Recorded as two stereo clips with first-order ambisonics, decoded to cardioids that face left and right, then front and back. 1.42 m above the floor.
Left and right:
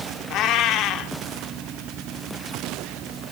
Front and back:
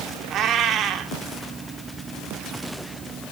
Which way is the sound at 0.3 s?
130° left.